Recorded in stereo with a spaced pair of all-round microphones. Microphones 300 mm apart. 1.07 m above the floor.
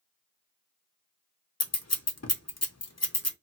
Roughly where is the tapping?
No tapping in this recording.